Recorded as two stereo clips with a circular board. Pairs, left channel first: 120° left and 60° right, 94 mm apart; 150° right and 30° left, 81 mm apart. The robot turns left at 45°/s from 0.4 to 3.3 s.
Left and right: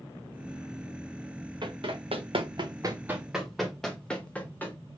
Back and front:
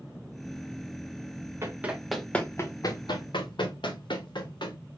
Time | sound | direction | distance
1.6 | running footsteps | 25° right | 1.3 m